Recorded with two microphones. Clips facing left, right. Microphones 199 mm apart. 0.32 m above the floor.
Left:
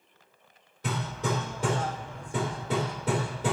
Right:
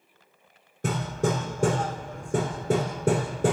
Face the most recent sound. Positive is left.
turn(degrees=-50)  # may be behind; listen again after turning